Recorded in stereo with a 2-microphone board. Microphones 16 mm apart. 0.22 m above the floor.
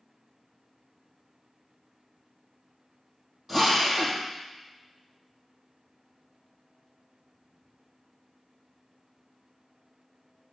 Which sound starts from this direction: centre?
A drill, at 3.5 s.